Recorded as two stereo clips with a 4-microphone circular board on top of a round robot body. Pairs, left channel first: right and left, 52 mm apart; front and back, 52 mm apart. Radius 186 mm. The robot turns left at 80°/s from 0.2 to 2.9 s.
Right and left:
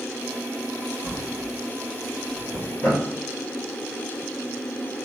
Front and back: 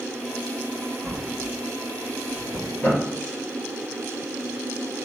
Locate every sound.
1.0 s a drawer: 90° left, 1.7 m; by 3.0 s 60° right, 1.7 m